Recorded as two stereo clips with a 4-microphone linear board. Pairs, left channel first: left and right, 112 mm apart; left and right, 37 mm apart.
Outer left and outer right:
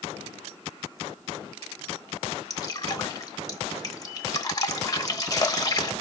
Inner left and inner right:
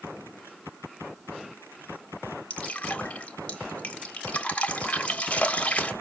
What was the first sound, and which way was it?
Dripping, 35° left (ahead or behind).